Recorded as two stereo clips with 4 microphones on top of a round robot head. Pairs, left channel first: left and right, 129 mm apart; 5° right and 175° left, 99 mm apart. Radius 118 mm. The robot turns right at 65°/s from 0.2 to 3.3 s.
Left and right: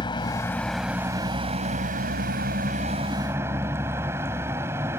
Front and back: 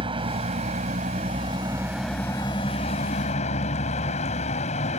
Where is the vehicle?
145° left; by 5.0 s 15° right.